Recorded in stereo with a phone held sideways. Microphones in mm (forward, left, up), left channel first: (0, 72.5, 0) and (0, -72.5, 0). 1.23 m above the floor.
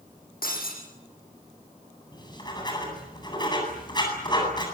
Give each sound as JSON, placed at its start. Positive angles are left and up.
{"t": 0.4, "sound": "breaking glass", "side_deg": 80, "distance_m": 9.5}
{"t": 2.1, "sound": "writing", "side_deg": 30, "distance_m": 9.0}